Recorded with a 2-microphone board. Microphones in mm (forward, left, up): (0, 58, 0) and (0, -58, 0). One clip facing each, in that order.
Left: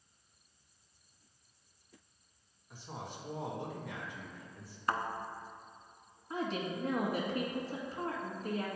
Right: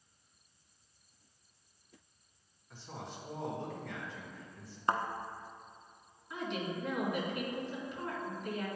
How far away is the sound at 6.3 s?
About 1.8 m.